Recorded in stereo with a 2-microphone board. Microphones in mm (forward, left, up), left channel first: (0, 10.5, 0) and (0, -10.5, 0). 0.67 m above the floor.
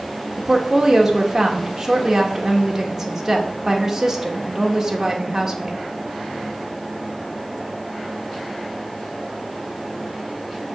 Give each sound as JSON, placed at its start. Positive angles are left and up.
{"t": 0.4, "sound": "a woman speaking", "side_deg": -20, "distance_m": 1.9}